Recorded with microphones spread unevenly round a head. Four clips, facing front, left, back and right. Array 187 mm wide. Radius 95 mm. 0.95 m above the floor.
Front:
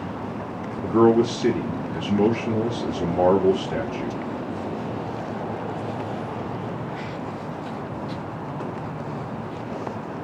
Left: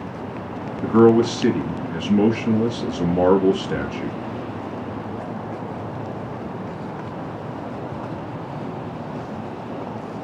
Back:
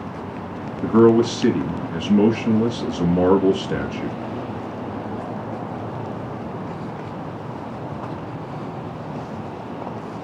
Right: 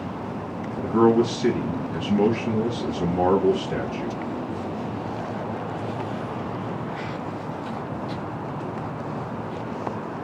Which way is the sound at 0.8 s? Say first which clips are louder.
Left 4 dB, back 3 dB; 145° left.